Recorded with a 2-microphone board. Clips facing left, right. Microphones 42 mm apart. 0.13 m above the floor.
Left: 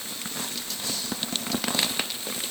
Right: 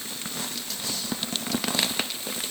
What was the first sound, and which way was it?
Only background noise.